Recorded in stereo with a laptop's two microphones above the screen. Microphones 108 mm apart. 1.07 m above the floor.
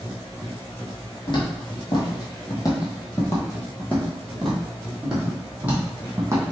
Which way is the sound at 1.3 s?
50° left (ahead or behind).